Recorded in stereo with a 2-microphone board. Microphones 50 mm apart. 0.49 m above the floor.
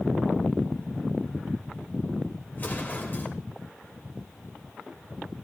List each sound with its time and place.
2.5 s an explosion: 40° left (ahead or behind), 1.9 m